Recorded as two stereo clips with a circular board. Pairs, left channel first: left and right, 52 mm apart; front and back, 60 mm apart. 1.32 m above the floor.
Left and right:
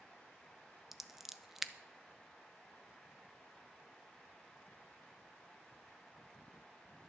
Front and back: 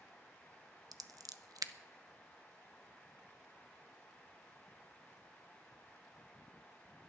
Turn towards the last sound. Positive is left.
turn(degrees=-175)